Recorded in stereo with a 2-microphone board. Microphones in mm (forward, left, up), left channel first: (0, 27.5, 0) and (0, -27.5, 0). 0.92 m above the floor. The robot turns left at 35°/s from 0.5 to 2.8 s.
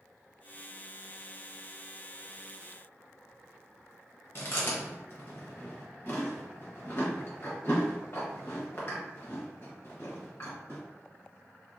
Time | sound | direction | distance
4.3 | chewing | 45° left (ahead or behind) | 1.0 m